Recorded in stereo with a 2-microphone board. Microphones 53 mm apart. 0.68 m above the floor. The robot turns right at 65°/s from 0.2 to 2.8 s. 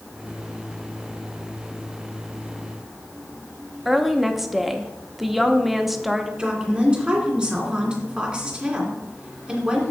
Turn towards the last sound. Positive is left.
turn(degrees=-20)  # may be behind; listen again after turning